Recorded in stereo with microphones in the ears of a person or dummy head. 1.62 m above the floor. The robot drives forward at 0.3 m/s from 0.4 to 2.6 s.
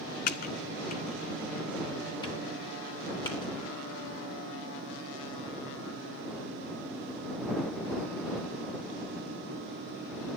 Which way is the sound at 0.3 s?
45° left (ahead or behind).